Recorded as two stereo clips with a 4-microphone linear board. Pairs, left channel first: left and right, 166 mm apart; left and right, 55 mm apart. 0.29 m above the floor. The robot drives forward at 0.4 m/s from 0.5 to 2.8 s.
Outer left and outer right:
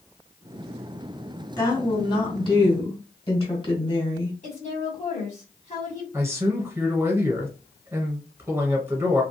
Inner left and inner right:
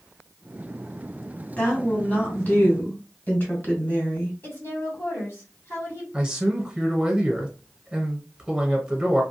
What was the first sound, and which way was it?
A woman speaking, 25° left (ahead or behind).